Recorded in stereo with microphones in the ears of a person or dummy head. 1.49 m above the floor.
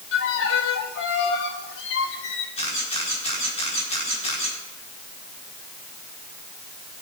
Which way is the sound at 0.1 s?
70° left (ahead or behind).